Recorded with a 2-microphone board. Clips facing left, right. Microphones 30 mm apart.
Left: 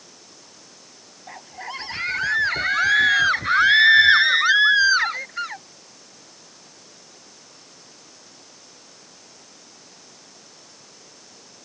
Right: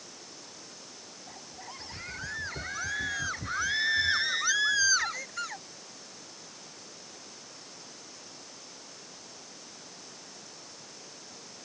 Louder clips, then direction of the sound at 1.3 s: Left 13 dB; 65° left (ahead or behind).